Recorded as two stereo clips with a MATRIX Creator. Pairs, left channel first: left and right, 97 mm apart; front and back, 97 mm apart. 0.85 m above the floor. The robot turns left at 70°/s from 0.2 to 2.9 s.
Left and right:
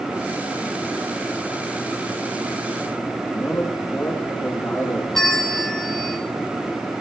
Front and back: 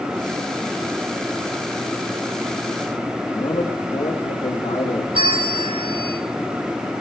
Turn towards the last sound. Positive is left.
turn(degrees=175)